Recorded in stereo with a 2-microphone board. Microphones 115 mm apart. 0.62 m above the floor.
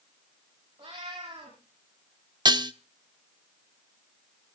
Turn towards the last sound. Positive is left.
turn(degrees=-40)  # may be behind; listen again after turning